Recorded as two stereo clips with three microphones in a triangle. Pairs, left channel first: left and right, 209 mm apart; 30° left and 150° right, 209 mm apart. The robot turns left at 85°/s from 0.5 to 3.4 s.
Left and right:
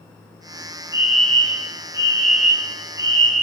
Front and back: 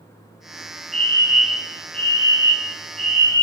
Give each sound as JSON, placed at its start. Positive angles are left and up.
{"t": 0.9, "sound": "a fire alarm", "azimuth_deg": 160, "distance_m": 5.0}